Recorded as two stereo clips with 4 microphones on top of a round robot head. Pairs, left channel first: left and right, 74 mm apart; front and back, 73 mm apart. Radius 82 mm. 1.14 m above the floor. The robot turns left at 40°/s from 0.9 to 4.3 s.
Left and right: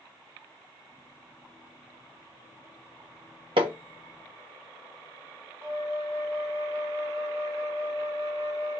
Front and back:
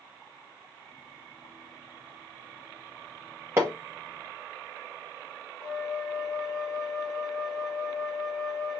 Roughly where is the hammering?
Right.